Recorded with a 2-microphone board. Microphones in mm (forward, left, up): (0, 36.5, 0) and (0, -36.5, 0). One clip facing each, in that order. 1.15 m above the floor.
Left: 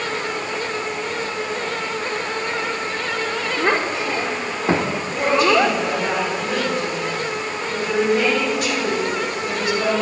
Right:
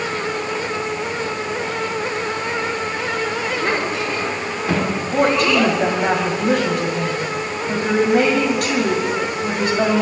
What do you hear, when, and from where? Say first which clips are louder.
3.6 s a child speaking: left 4 dB; 30° left (ahead or behind), 3 m
5.1 s a woman speaking: even; 60° right (ahead or behind), 5.5 m